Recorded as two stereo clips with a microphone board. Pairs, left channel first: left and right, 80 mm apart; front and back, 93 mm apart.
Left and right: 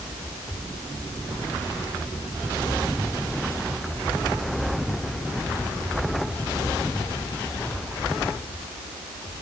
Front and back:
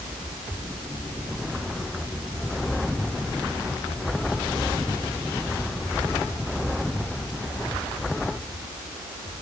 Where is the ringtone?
No ringtone in this recording.